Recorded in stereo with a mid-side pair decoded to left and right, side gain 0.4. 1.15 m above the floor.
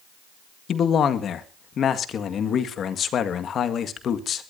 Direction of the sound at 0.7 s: 65° left.